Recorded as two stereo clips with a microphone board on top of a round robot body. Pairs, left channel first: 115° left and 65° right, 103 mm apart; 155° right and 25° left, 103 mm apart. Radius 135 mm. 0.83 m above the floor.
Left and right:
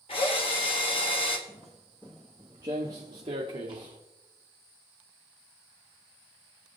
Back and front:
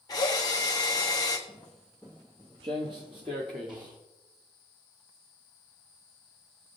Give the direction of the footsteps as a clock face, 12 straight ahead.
7 o'clock.